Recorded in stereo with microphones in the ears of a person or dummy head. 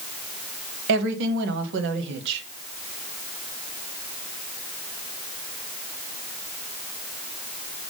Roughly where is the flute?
I don't hear a flute.